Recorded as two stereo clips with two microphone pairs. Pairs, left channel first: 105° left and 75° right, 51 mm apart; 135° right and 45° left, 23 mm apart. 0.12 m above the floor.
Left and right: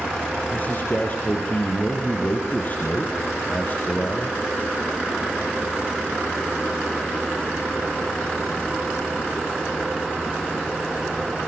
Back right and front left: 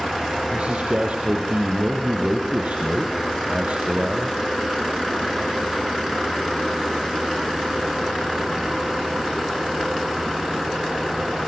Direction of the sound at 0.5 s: 55° left.